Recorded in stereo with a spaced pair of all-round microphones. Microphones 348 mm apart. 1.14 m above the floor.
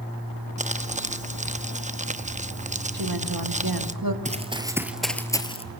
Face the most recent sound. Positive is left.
turn(degrees=20)  # may be behind; listen again after turning